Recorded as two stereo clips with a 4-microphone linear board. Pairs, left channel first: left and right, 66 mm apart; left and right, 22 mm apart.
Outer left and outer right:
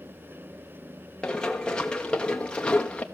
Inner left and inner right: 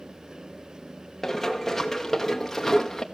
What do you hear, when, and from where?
1.2 s running footsteps: 10° left (ahead or behind), 2.5 m; by 3.0 s 20° left (ahead or behind), 1.3 m